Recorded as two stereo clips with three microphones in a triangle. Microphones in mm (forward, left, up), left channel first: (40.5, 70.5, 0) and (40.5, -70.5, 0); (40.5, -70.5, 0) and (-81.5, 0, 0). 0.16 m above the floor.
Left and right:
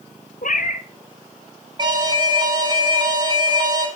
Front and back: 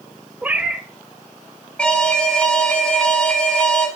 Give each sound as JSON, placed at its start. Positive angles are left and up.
{"t": 0.4, "sound": "a cat meowing", "azimuth_deg": 70, "distance_m": 0.9}
{"t": 1.8, "sound": "an alarm", "azimuth_deg": -105, "distance_m": 1.6}